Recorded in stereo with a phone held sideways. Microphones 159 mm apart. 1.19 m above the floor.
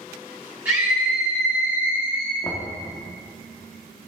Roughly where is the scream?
Centre.